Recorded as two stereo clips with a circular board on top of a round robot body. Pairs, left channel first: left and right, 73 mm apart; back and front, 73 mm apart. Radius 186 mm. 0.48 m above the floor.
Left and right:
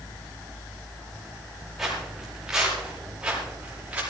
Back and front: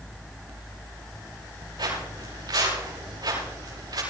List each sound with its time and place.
1.8 s footsteps: 5° right, 8 m; by 4.0 s 20° right, 8.5 m